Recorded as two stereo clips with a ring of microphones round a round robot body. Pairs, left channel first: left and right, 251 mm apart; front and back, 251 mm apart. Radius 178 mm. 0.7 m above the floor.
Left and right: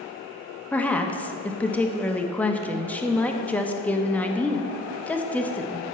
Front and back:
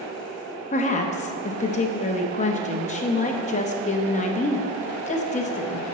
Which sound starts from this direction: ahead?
A woman speaking, at 0.7 s.